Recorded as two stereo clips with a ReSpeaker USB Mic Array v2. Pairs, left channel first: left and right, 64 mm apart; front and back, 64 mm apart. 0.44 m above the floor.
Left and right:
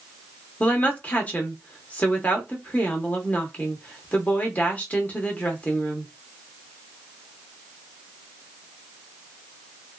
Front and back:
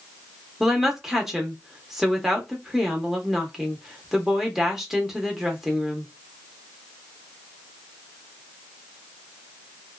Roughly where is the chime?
I don't hear a chime.